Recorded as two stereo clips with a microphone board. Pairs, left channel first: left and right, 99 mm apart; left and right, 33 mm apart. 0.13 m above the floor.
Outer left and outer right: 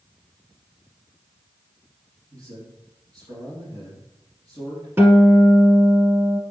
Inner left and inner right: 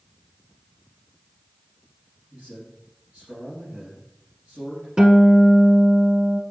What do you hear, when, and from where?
2.3 s a man speaking: 45° right (ahead or behind), 2.5 m
5.0 s a guitar: 25° right (ahead or behind), 1.1 m